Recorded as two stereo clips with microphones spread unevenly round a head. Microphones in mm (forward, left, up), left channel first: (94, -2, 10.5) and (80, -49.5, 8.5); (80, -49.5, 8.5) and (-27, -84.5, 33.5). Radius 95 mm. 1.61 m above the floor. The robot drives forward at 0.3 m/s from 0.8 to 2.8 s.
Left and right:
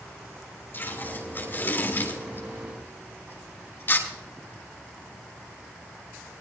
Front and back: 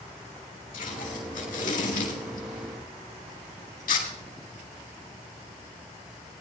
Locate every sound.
0.7 s tape being pulled: 25° left, 5 m; by 4.1 s 30° left, 4.5 m